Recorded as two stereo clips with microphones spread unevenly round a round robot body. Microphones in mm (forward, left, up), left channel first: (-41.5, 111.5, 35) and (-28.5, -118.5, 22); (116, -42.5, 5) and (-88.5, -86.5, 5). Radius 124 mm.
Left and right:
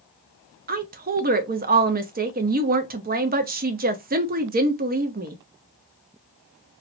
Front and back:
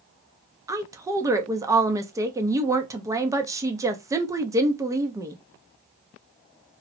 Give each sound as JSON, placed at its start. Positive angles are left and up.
{"t": 0.7, "sound": "a woman speaking", "azimuth_deg": -100, "distance_m": 0.5}